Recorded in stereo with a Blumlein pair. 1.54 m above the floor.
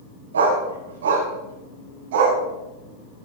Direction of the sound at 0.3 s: 70° right.